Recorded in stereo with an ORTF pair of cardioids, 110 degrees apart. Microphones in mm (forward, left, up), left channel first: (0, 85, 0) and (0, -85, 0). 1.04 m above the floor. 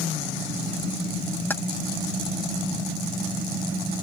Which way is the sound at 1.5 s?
10° left.